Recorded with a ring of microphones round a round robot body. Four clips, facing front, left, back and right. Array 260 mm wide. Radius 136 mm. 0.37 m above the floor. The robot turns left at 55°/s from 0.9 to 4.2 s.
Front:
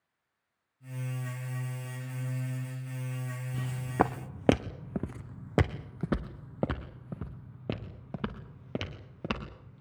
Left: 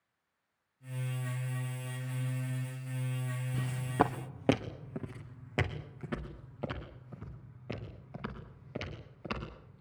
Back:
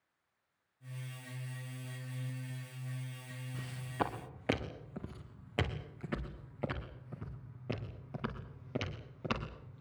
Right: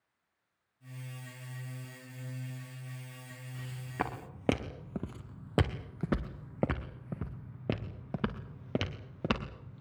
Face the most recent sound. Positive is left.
turn(degrees=-65)